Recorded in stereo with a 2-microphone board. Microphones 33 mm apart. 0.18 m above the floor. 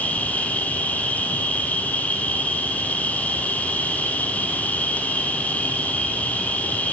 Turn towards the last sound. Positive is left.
turn(degrees=45)  # may be behind; listen again after turning